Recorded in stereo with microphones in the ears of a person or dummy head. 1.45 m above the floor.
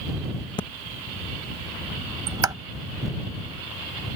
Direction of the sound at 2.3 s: 20° right (ahead or behind).